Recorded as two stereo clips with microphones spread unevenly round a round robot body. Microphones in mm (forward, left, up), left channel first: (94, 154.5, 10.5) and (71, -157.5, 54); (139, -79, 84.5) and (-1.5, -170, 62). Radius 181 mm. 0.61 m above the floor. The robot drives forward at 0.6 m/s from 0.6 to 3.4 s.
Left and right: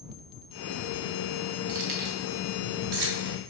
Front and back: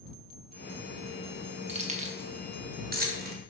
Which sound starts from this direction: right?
Keys jangling, at 1.7 s.